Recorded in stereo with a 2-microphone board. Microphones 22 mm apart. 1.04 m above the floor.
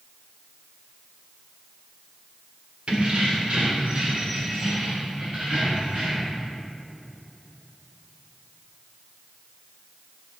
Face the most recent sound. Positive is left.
turn(degrees=-55)  # may be behind; listen again after turning